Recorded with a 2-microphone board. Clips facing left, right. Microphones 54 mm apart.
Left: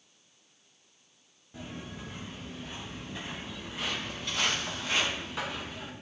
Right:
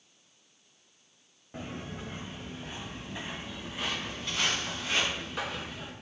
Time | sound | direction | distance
1.5 | footsteps | 40° right (ahead or behind) | 0.7 m